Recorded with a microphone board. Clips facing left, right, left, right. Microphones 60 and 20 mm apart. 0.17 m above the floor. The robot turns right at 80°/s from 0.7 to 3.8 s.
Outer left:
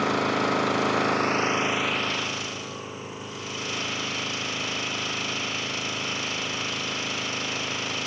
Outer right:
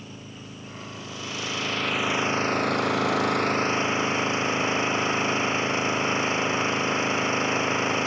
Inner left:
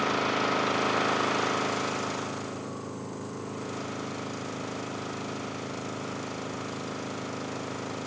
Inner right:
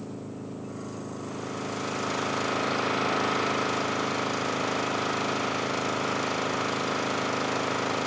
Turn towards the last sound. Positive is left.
turn(degrees=-30)